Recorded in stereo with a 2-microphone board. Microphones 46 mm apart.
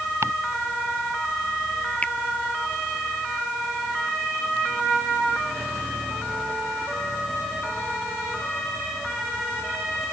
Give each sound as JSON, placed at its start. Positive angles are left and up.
{"t": 0.2, "sound": "ticking", "side_deg": -80}
{"t": 2.0, "sound": "a finger snap", "side_deg": 30}